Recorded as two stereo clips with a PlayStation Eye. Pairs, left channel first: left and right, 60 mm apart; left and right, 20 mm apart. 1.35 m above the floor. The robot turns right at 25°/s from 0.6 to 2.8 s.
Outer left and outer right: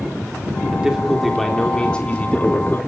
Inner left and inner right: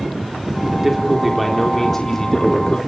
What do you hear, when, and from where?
0.7 s a man speaking: 15° right, 3.5 m; by 2.8 s 40° left, 3.5 m